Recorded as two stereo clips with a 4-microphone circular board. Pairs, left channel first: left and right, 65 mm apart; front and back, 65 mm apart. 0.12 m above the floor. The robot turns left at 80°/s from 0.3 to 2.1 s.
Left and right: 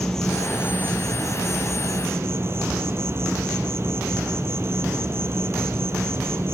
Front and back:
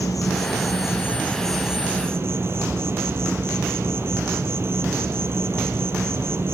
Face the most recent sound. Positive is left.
turn(degrees=-135)